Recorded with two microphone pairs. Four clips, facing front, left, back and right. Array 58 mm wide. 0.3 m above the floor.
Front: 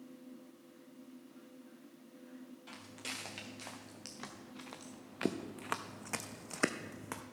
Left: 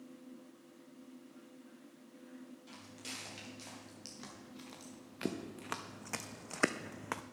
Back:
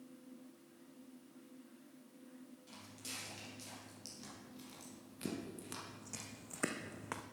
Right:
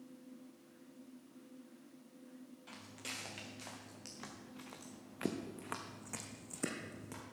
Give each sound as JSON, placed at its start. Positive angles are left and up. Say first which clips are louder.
{"t": 2.7, "sound": "footsteps", "louder": "right 3 dB, front 6 dB", "azimuth_deg": -25, "distance_m": 4.0}